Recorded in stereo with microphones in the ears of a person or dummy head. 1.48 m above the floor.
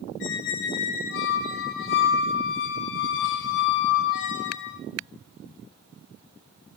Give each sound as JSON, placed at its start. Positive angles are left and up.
{"t": 0.2, "sound": "a squeak", "side_deg": 60, "distance_m": 1.2}